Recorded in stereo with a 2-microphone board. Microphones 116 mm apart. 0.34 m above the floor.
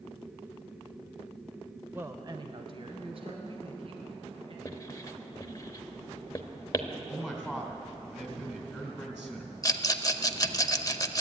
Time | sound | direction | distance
1.9 | a woman speaking | 15° right (ahead or behind) | 0.8 m
4.7 | writing | 30° left (ahead or behind) | 0.9 m
7.1 | a man speaking | 5° right (ahead or behind) | 3 m
9.6 | a rattle | 30° left (ahead or behind) | 0.6 m